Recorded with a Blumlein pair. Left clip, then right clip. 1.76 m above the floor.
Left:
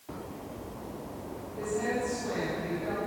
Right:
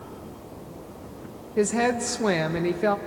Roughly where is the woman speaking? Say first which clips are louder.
Right 8 dB; ahead right.